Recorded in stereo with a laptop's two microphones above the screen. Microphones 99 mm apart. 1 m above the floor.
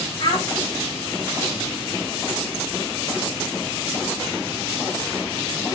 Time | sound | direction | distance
0.2 | a child speaking | 50° left (ahead or behind) | 1.9 m